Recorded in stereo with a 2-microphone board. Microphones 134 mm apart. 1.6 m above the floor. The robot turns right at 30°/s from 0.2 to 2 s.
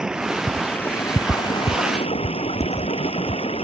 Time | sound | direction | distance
0.0 | running water | 5° right | ?